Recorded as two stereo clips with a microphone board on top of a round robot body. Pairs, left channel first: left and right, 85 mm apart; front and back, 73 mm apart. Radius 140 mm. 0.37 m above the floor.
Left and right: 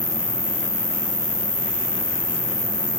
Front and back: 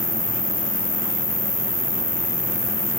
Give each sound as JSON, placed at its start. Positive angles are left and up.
{"t": 0.0, "sound": "an insect", "azimuth_deg": 45, "distance_m": 0.9}